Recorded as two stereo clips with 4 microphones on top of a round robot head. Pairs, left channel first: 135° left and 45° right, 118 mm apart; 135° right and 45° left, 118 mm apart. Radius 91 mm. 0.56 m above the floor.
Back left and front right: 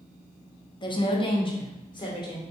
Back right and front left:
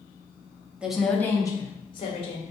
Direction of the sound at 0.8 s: 120° left.